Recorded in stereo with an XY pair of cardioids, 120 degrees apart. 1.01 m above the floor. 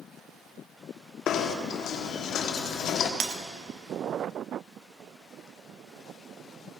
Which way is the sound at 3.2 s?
60° right.